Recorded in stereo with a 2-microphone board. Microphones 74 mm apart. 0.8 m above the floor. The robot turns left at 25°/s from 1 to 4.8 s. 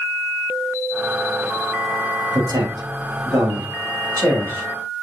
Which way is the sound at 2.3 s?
85° right.